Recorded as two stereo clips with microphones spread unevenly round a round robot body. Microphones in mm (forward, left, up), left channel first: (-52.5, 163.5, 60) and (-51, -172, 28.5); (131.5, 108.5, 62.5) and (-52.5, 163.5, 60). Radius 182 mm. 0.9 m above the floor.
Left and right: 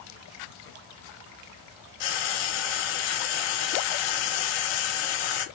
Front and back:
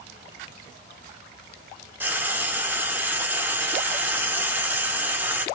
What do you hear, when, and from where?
2.0 s frying: 80° left, 1.4 m